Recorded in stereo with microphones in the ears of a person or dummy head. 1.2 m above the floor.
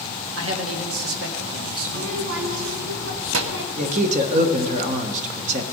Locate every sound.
0.4 s a man speaking: 80° right, 2.0 m
1.9 s a child speaking: 85° right, 1.0 m
3.8 s a man speaking: 40° right (ahead or behind), 1.1 m